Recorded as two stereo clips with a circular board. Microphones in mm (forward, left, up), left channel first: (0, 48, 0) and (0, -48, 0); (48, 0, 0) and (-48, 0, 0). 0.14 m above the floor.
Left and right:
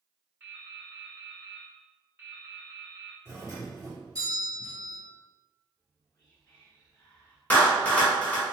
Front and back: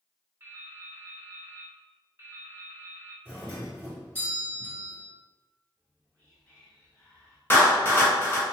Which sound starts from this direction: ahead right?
A doorbell, at 3.2 s.